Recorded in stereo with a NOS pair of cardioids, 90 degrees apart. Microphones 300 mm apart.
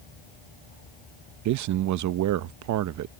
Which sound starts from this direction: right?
A man speaking, at 1.4 s.